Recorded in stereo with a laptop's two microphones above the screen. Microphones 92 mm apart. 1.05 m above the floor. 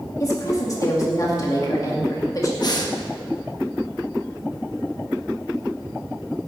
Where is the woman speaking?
40° left (ahead or behind), 2 m.